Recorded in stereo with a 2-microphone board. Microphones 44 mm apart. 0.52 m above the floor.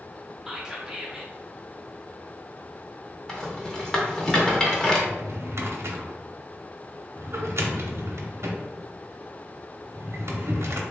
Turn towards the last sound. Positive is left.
turn(degrees=-75)  # may be behind; listen again after turning